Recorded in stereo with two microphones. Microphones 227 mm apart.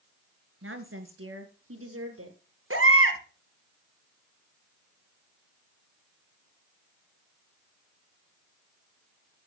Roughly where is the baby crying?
Right.